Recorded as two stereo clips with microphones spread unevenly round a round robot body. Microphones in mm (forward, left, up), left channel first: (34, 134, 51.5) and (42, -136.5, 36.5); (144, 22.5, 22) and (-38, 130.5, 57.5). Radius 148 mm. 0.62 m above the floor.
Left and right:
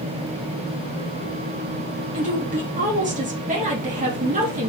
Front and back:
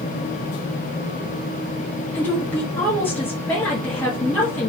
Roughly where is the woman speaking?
Right.